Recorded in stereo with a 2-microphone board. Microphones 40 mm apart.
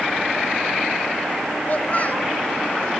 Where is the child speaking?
40° left (ahead or behind), 1.9 m.